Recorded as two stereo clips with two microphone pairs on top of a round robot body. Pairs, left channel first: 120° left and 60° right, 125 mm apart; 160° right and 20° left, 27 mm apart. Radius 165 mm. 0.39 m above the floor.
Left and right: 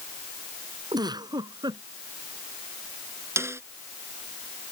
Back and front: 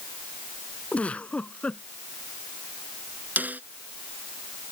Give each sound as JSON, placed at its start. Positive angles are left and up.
{"t": 0.9, "sound": "a giggle", "azimuth_deg": -115}
{"t": 3.4, "sound": "a snare drum", "azimuth_deg": 10}